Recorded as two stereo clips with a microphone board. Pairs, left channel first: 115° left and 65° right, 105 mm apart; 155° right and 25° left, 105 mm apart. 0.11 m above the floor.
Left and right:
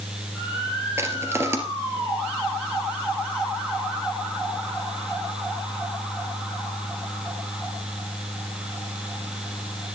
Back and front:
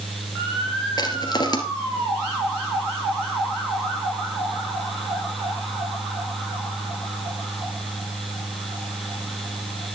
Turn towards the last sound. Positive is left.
turn(degrees=-125)